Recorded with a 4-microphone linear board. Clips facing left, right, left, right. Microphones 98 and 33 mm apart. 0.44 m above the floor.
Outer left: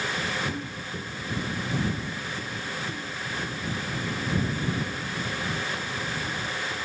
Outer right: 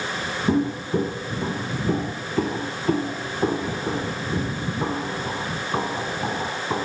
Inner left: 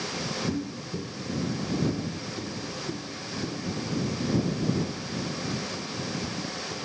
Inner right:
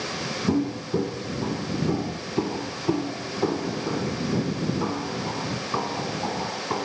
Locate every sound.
0.5 s footsteps: 55° right (ahead or behind); by 6.8 s 80° right